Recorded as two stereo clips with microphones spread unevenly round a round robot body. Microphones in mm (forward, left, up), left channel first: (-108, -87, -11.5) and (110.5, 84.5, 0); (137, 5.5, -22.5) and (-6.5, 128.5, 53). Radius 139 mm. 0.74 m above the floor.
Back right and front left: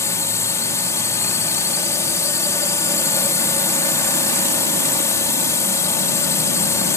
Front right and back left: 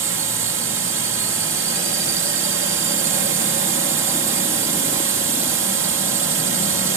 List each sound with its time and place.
0.0 s a drone: 145° left